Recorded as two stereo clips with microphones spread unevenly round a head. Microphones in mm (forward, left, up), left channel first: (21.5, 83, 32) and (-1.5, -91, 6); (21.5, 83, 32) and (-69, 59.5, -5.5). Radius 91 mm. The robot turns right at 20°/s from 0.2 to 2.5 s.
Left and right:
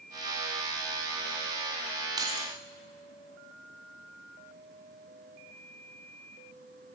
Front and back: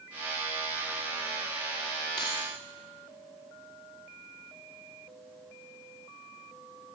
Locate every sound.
2.2 s keys jangling: 25° right, 1.8 m; by 2.5 s 20° right, 1.8 m